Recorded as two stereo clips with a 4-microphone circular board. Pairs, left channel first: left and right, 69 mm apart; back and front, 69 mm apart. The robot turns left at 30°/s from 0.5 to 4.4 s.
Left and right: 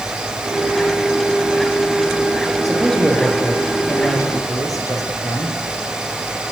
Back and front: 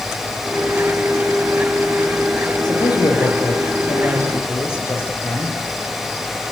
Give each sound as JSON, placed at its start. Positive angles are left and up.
{"t": 2.6, "sound": "a man speaking", "azimuth_deg": 180, "distance_m": 8.0}